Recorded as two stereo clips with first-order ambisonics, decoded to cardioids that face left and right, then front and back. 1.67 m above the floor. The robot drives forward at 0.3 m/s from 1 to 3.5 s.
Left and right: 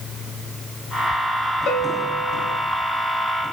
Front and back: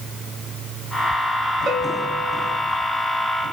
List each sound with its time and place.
1.7 s a bell: 135° left, 3 m